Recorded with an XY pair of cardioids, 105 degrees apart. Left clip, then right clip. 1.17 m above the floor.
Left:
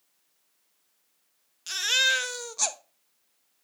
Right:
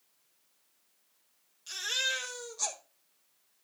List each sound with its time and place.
1.7 s a baby crying: 70° left, 1.0 m